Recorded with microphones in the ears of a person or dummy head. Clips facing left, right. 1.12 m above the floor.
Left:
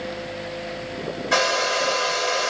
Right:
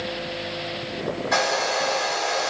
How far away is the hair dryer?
About 1.9 m.